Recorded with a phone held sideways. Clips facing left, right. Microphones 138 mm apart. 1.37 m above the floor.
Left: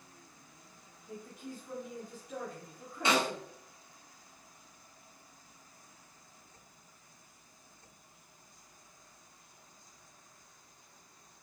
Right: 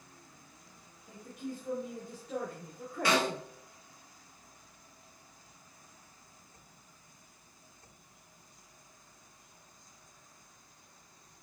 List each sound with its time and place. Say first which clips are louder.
1.1 s a woman speaking: right 3 dB; 50° right (ahead or behind), 1.6 m; by 3.4 s 75° right (ahead or behind), 0.7 m
3.0 s a snare drum: right 1 dB; 20° left (ahead or behind), 1.1 m